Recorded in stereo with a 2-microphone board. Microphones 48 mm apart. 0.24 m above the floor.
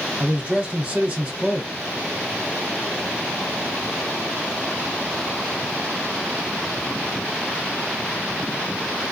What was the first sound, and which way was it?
A man speaking, 30° right (ahead or behind).